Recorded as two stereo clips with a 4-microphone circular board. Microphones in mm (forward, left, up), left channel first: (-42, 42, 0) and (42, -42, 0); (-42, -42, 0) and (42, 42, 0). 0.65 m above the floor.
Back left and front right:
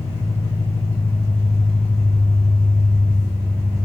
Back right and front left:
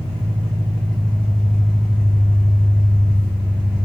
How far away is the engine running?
About 1.3 m.